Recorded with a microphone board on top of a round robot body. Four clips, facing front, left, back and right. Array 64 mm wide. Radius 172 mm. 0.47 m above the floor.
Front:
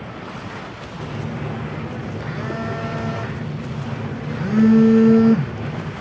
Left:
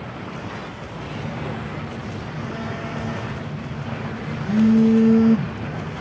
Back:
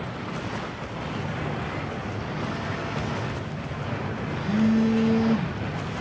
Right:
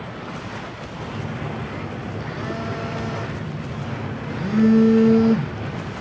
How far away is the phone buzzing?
About 1.2 m.